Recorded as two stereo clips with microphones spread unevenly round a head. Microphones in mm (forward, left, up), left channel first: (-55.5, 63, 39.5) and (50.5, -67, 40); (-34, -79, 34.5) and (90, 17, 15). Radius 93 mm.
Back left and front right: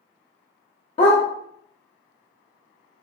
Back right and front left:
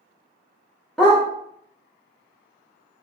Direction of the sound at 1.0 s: 145° left.